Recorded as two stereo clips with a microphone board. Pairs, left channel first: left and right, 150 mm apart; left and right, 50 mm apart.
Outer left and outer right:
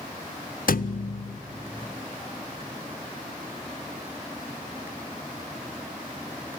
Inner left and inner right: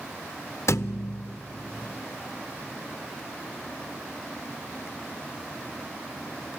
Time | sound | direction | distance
0.7 | a thud | 70° left (ahead or behind) | 0.6 m